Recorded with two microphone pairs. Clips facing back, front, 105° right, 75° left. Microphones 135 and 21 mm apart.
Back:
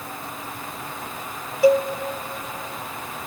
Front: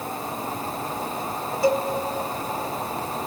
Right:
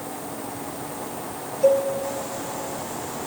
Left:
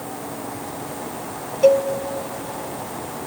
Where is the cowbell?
105° left, 0.9 m.